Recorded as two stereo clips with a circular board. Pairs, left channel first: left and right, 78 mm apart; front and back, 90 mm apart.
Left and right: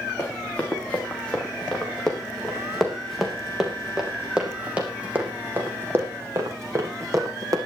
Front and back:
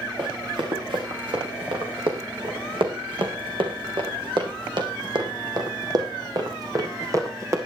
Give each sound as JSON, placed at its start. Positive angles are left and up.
{"t": 0.2, "sound": "running footsteps", "azimuth_deg": 155, "distance_m": 5.0}